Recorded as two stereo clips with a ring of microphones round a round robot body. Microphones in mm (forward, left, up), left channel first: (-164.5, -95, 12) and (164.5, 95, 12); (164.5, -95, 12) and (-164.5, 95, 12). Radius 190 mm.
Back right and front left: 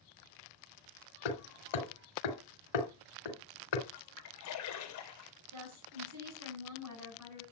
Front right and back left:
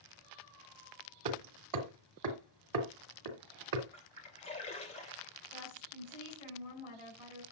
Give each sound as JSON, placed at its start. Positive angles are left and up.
{"t": 1.2, "sound": "hammering", "azimuth_deg": -170, "distance_m": 2.5}
{"t": 3.9, "sound": "a splash", "azimuth_deg": -105, "distance_m": 3.0}
{"t": 5.5, "sound": "a woman speaking", "azimuth_deg": -15, "distance_m": 9.0}